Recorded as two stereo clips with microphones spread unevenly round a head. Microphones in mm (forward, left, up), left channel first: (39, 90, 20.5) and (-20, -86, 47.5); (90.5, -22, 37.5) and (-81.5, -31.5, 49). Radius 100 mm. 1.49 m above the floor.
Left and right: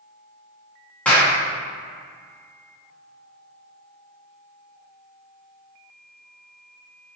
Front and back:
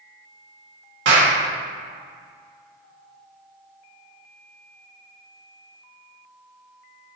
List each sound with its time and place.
1.1 s a clap: 155° left, 2 m